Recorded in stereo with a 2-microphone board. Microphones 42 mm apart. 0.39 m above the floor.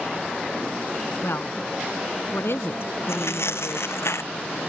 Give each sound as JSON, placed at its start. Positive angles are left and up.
{"t": 1.2, "sound": "a woman speaking", "side_deg": 75}
{"t": 3.1, "sound": "tearing paper", "side_deg": 80}